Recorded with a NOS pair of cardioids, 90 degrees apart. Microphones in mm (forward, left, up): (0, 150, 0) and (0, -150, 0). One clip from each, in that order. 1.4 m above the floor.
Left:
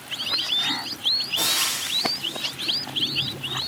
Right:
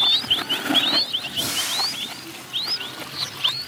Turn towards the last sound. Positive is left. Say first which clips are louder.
# even
turn(degrees=70)